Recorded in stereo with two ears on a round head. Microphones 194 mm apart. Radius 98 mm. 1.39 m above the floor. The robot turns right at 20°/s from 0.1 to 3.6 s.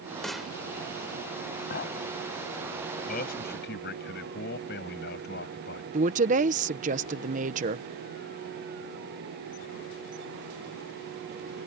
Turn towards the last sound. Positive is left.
turn(degrees=-35)  # may be behind; listen again after turning